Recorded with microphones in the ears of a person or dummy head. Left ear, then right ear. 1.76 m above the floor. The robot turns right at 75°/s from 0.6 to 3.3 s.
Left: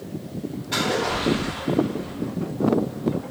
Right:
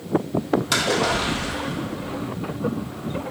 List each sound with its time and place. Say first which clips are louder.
0.7 s a splash: right 1 dB; 70° right, 1.7 m; by 2.1 s 35° left, 1.7 m